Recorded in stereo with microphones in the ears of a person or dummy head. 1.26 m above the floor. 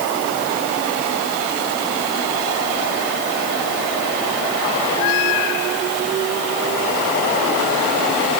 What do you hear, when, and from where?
Only background noise.